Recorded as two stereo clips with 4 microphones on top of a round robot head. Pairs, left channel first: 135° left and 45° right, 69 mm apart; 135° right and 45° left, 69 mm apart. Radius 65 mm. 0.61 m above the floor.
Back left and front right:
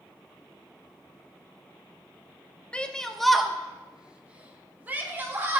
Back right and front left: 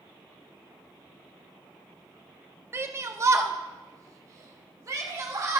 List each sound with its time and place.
2.7 s a shout: 70° left, 1.0 m; by 5.6 s 10° left, 1.9 m